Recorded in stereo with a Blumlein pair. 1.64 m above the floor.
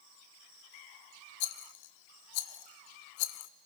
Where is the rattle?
50° left, 0.7 m.